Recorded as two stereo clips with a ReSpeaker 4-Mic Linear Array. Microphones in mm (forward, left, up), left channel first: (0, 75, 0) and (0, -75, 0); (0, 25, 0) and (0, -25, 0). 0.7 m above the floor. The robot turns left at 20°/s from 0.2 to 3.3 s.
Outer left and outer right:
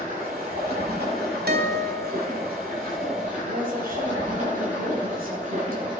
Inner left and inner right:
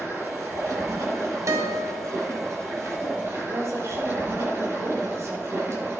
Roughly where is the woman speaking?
Right.